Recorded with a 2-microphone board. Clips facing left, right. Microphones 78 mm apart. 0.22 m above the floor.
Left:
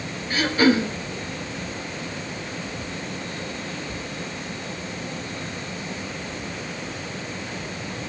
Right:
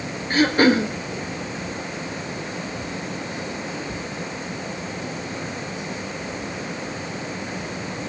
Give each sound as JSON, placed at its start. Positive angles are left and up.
{"t": 0.3, "sound": "throat clearing", "side_deg": -40, "distance_m": 3.5}